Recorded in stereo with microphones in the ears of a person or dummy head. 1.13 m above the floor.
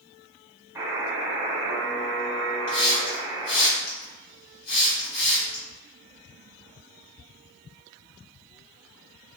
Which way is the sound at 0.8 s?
10° right (ahead or behind).